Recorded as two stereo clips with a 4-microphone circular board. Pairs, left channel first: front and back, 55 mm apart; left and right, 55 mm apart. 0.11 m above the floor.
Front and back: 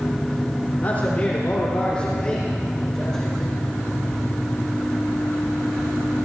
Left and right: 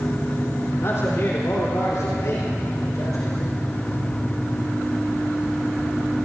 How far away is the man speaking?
About 4 m.